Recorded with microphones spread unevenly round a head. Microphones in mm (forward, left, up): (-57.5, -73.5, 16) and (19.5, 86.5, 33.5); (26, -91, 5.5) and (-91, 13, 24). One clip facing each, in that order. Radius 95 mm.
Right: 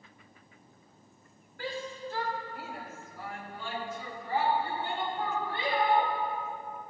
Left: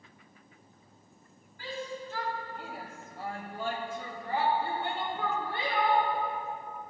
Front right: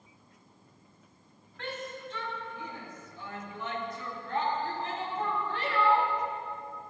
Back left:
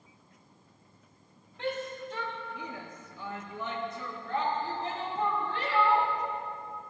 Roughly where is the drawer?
I don't hear a drawer.